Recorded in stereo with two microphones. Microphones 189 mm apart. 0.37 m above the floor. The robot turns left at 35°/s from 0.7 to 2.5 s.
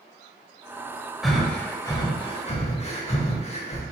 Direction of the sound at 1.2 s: Centre (ahead or behind).